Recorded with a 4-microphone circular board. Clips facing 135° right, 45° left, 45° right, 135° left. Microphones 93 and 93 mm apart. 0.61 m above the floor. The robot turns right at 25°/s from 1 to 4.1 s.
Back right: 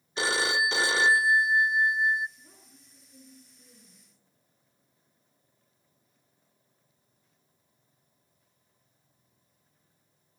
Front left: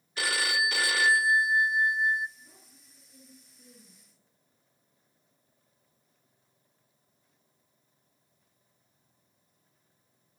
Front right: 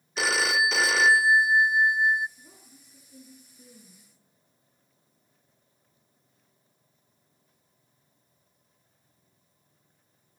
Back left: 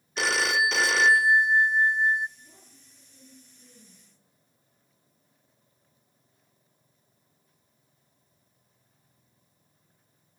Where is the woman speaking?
70° right, 7 m; by 4.2 s 30° right, 7 m.